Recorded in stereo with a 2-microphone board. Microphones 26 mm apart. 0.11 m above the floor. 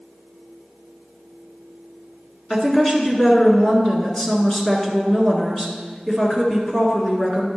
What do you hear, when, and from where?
2.5 s a woman speaking: 20° left (ahead or behind), 1.5 m